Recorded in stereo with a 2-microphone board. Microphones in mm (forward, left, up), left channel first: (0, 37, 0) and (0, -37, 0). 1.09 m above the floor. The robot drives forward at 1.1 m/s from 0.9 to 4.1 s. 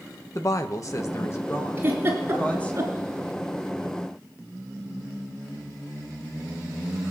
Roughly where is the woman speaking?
Left.